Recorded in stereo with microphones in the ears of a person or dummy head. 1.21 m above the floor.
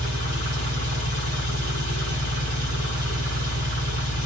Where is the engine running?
50° right (ahead or behind), 1.6 m.